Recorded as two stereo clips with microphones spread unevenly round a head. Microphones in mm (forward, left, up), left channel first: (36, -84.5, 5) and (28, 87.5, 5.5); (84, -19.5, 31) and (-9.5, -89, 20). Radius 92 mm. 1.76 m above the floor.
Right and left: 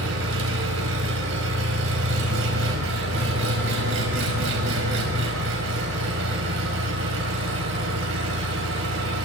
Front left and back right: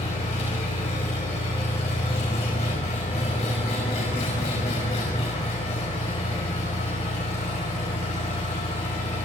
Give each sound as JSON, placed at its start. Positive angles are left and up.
{"t": 0.0, "sound": "an engine running", "azimuth_deg": 95, "distance_m": 5.5}